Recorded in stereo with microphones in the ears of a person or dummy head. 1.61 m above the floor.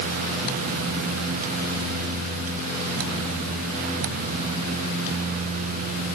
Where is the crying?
I don't hear crying.